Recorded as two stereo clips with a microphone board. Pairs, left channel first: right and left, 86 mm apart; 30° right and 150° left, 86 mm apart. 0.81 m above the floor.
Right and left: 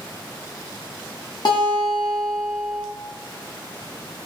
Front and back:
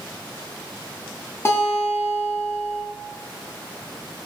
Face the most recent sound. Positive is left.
turn(degrees=-85)